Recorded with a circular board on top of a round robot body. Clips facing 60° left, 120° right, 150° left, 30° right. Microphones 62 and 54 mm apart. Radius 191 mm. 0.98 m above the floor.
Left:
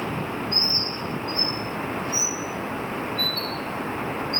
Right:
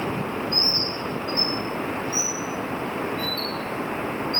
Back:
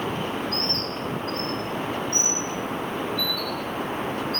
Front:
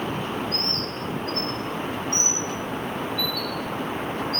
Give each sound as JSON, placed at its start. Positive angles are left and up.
{"t": 0.5, "sound": "a bird", "azimuth_deg": 70, "distance_m": 1.6}